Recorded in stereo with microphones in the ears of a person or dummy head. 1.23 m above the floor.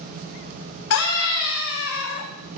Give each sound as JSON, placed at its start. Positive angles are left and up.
{"t": 0.9, "sound": "a scream", "side_deg": 70, "distance_m": 3.0}